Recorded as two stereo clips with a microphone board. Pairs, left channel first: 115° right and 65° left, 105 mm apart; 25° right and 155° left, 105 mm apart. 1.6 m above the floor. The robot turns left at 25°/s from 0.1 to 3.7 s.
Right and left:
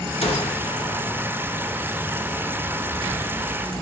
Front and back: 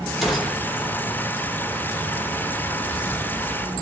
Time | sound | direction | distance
0.2 | a gunshot | 115° right | 1.1 m